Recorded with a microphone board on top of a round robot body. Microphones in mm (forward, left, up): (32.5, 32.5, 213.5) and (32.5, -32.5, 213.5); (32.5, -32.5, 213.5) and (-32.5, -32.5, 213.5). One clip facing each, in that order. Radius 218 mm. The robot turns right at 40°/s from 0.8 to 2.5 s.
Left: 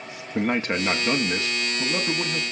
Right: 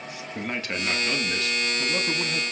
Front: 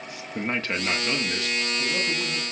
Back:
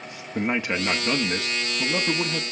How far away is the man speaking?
About 1.5 m.